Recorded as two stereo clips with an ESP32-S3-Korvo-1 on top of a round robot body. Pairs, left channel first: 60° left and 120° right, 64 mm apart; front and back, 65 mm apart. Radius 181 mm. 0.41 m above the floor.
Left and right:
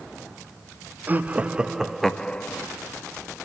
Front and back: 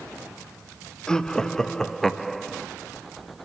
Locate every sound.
1.1 s laughter: 75° right, 1.5 m; by 2.7 s 90° left, 1.3 m